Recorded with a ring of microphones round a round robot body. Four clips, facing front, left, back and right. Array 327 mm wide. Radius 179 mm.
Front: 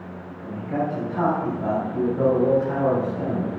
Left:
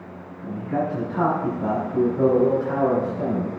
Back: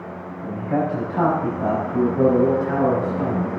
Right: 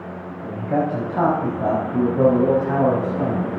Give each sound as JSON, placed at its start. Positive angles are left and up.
{"t": 0.4, "sound": "a man speaking", "azimuth_deg": -120, "distance_m": 4.0}